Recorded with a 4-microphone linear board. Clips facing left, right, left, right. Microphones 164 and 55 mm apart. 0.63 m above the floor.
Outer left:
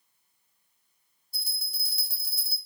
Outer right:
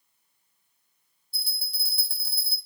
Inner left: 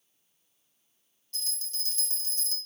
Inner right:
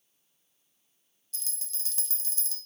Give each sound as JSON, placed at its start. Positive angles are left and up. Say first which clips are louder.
{"t": 1.3, "sound": "a bell", "louder": "outer right 2 dB, inner left 8 dB", "side_deg": 45, "distance_m": 0.6}